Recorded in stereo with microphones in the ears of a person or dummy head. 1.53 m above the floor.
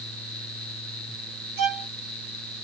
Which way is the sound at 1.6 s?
60° right (ahead or behind).